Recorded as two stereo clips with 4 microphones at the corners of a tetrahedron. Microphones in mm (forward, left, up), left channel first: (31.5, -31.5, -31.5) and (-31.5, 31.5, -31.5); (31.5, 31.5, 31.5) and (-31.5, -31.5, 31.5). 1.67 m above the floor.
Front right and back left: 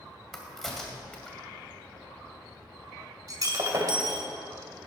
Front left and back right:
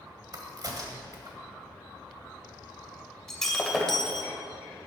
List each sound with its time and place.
0.3 s a crack: 130° right, 2 m
3.3 s breaking glass: 125° left, 1.9 m